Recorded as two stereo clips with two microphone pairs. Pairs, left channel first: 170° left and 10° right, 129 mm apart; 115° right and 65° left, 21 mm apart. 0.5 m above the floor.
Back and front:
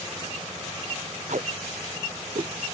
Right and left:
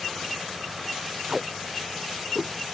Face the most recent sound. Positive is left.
turn(degrees=-15)